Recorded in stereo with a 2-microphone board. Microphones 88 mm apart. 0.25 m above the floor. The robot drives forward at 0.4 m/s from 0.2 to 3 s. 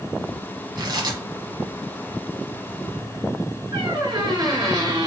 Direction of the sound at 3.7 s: 50° right (ahead or behind).